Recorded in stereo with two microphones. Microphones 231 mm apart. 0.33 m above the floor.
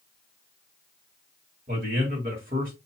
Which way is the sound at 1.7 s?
40° right (ahead or behind).